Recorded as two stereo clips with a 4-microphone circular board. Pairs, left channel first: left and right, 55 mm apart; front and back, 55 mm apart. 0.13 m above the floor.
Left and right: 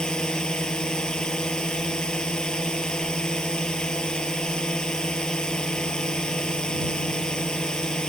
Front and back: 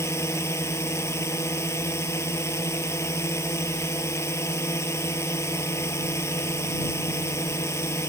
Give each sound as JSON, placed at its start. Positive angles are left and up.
{"t": 0.0, "sound": "a drone", "azimuth_deg": 15}